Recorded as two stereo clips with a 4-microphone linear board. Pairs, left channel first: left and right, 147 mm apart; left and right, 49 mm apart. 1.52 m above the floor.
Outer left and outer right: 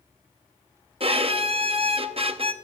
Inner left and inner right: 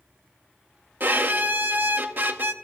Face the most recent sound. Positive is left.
turn(degrees=-40)  # may be behind; listen again after turning